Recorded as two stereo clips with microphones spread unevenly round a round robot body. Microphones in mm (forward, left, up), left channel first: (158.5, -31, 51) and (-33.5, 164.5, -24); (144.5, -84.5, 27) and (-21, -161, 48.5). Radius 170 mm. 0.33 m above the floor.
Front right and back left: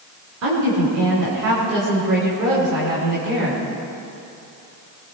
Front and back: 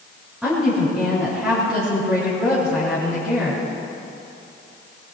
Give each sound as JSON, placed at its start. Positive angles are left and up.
{"t": 0.4, "sound": "a woman speaking", "azimuth_deg": 120, "distance_m": 4.0}